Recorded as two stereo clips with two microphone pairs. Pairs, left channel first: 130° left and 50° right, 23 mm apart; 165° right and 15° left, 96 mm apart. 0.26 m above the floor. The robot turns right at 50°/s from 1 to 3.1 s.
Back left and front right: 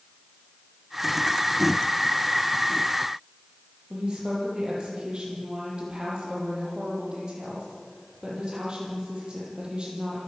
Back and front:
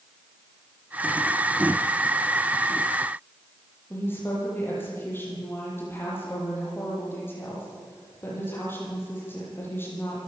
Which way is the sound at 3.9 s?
100° right.